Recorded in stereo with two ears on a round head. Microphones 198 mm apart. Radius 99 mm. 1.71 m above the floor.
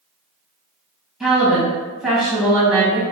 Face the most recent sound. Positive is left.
turn(degrees=0)  # may be behind; listen again after turning